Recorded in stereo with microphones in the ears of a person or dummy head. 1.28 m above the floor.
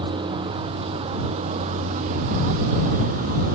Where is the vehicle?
25° right (ahead or behind); by 3.5 s 45° right (ahead or behind).